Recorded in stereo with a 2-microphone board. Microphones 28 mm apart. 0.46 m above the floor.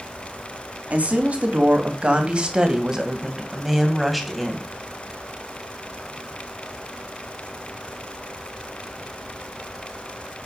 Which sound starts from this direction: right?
A woman speaking, at 0.9 s.